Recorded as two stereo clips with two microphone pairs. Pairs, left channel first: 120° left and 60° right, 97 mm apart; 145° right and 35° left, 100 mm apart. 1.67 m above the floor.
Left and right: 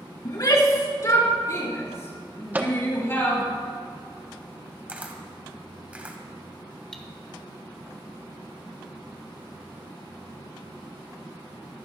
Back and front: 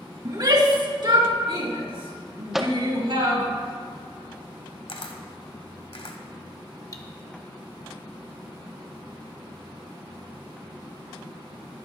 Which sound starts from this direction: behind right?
A camera shutter, at 4.9 s.